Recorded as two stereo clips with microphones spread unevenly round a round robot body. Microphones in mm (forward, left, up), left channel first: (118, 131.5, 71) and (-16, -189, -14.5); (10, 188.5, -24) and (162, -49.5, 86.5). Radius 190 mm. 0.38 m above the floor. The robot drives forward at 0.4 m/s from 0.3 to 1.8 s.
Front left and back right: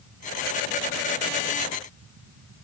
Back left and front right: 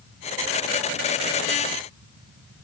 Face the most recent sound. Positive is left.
No sound to turn to.